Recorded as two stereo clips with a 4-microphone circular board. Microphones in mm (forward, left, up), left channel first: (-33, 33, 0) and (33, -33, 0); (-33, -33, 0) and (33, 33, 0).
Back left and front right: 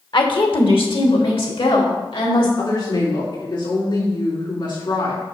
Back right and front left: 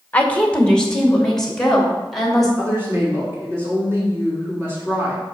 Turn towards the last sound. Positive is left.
turn(degrees=105)